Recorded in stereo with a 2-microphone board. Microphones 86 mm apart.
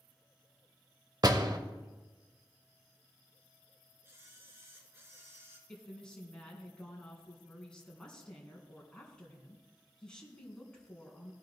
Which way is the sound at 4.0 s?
25° right (ahead or behind).